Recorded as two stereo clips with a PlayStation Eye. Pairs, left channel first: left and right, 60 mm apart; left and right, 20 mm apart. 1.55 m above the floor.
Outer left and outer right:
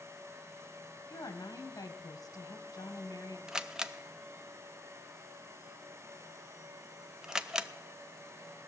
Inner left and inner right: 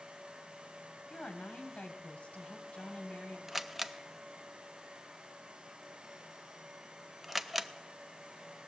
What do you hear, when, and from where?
1.1 s a woman speaking: 70° left (ahead or behind), 1.4 m
3.5 s a camera shutter: 10° right (ahead or behind), 0.5 m